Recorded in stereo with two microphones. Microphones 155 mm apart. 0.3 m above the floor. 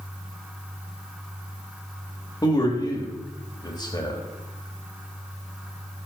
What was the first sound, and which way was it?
A man speaking, 25° left (ahead or behind).